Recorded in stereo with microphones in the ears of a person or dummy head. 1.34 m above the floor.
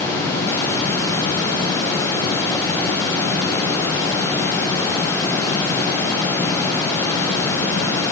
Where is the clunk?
I don't hear a clunk.